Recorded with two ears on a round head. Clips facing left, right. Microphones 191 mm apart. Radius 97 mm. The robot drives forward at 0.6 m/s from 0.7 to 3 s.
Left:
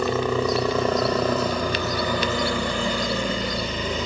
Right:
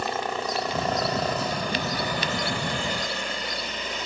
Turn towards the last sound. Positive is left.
turn(degrees=70)  # may be behind; listen again after turning